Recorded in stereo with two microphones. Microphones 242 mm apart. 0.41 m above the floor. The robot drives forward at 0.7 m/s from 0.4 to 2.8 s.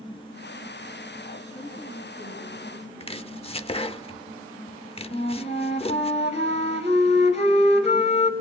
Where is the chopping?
25° left (ahead or behind), 0.7 m.